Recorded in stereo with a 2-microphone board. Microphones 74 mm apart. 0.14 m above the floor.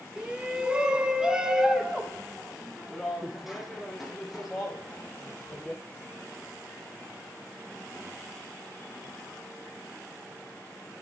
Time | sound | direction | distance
0.2 | a shout | 15° right (ahead or behind) | 1.2 m